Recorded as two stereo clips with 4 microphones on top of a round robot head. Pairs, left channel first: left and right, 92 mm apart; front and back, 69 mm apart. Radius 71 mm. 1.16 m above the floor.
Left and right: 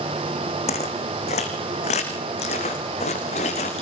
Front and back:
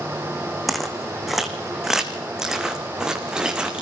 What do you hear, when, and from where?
0.7 s footsteps: 90° left, 3.5 m; by 3.8 s 105° left, 4.5 m